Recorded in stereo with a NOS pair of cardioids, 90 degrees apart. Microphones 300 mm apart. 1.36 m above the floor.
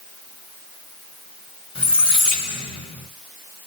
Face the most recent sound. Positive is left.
turn(degrees=20)